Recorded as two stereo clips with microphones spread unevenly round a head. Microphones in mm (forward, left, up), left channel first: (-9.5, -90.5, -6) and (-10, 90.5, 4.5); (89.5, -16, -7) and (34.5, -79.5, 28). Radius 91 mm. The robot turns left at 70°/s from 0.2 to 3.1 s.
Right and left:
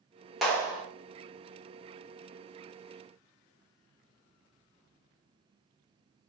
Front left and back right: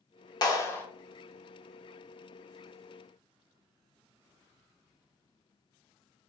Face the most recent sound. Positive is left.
turn(degrees=170)